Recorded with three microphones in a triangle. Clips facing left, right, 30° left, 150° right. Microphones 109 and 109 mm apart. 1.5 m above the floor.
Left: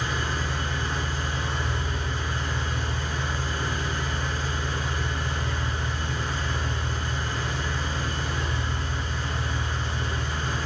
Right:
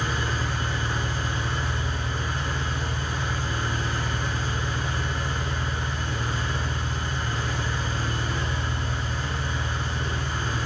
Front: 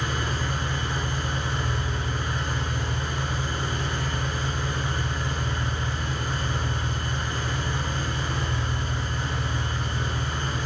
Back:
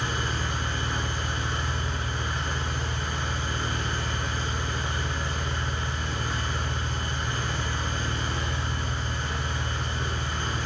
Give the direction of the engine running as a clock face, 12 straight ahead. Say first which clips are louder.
Right 1 dB, front 1 dB; 12 o'clock.